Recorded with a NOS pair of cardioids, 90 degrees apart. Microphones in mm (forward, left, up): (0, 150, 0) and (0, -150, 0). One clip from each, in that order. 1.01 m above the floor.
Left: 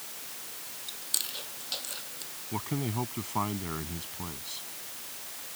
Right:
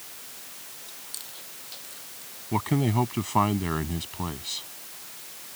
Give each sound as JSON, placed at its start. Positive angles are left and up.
{"t": 0.9, "sound": "chewing", "azimuth_deg": 60}
{"t": 2.5, "sound": "a man speaking", "azimuth_deg": -60}